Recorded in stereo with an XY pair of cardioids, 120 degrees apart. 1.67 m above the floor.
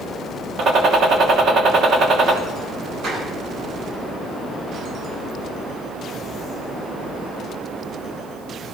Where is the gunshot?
50° right, 2.5 m.